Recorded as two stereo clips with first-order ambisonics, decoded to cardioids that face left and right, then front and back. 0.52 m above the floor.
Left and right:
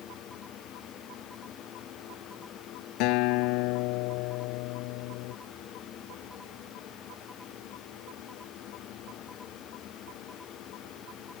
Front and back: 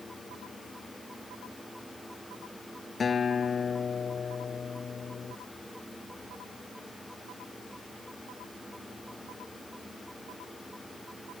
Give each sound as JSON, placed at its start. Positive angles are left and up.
{"t": 3.0, "sound": "a guitar", "azimuth_deg": 70}